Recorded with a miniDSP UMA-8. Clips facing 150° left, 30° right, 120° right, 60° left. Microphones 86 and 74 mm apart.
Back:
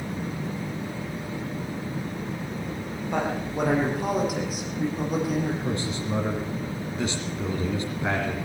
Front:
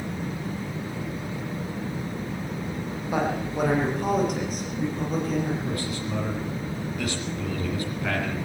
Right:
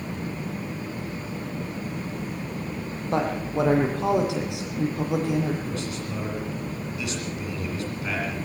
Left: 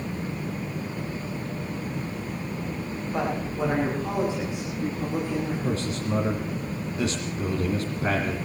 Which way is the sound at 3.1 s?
115° right.